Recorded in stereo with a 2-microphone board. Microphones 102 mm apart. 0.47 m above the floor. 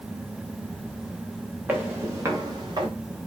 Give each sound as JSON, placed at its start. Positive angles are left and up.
{"t": 1.7, "sound": "footsteps", "side_deg": -20, "distance_m": 3.5}